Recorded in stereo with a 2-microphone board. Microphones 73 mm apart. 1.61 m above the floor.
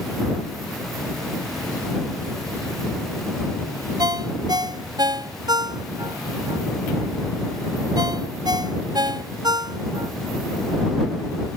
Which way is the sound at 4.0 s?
70° right (ahead or behind).